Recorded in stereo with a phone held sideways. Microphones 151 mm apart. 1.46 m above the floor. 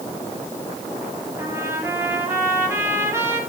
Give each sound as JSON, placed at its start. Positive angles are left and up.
{"t": 1.4, "sound": "a trumpet", "side_deg": -15, "distance_m": 5.0}